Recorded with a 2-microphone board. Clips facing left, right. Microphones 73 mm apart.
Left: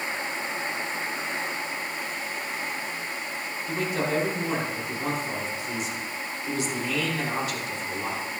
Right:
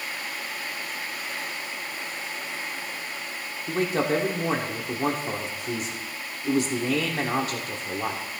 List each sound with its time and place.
3.7 s a man speaking: 45° right (ahead or behind), 1.5 m